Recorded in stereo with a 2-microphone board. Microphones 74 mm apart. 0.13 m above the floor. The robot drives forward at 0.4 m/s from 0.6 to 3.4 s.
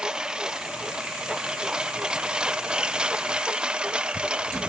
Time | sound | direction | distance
0.0 | a lawn mower | 10° right (ahead or behind) | ?